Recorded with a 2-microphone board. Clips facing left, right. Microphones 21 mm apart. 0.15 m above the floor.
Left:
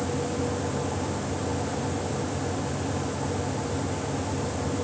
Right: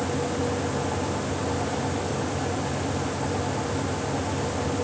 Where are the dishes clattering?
I don't hear dishes clattering.